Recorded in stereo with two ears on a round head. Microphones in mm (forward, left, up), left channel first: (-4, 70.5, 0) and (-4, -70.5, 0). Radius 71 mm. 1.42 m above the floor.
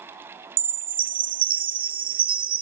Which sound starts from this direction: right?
A chime, at 0.6 s.